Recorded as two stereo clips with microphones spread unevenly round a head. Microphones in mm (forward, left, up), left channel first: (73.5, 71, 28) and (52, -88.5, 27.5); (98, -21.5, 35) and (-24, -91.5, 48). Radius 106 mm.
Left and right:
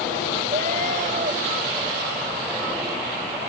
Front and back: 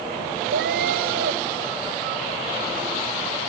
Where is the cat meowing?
160° right.